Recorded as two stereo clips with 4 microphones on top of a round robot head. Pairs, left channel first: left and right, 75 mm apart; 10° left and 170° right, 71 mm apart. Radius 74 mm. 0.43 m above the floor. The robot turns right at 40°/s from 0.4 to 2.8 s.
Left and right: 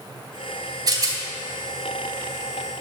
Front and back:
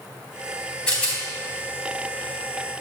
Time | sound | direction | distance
0.9 | a rattle | 65° right | 3 m